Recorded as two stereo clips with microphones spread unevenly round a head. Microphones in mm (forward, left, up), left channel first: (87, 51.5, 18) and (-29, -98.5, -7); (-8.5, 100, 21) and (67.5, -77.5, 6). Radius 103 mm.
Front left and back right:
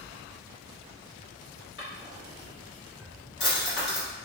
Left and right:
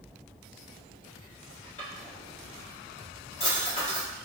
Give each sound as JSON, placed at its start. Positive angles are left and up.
{"t": 1.8, "sound": "a drawer", "azimuth_deg": 60, "distance_m": 1.4}